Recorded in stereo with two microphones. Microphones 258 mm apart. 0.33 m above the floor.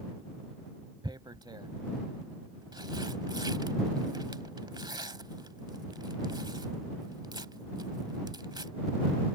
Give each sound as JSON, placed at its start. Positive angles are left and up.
{"t": 1.0, "sound": "tearing paper", "side_deg": -15}